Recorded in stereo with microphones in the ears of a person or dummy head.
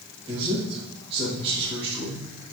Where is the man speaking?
30° right (ahead or behind), 2 m.